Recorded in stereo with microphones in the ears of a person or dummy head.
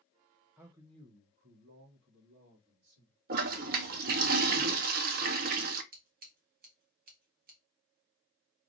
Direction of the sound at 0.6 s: 10° right (ahead or behind).